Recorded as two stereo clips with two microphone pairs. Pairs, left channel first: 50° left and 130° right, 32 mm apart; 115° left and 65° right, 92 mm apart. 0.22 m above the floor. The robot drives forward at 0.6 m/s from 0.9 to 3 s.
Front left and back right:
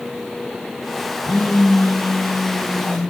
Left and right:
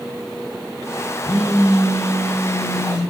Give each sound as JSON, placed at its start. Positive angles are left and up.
{"t": 1.2, "sound": "a phone buzzing", "azimuth_deg": 75, "distance_m": 4.5}